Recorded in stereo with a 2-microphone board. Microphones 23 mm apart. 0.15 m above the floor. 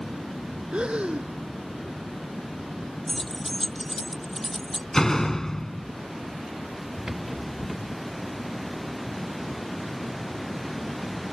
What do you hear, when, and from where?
0.7 s breathing: 60° right (ahead or behind)
3.1 s keys jangling: 10° left (ahead or behind)
4.9 s a door slam: 25° left (ahead or behind)
7.1 s a rattle: 35° right (ahead or behind)